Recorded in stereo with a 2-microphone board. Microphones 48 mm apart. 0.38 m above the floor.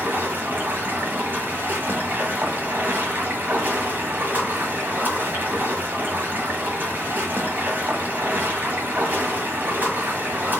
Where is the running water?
45° right (ahead or behind), 1.8 m.